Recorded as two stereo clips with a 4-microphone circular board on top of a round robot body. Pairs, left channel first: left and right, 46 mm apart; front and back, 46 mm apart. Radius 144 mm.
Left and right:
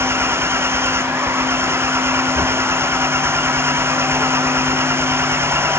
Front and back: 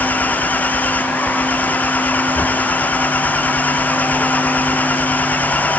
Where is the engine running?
55° right.